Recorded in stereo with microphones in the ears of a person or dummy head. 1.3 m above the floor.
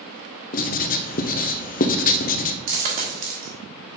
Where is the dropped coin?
45° right (ahead or behind), 1.4 m.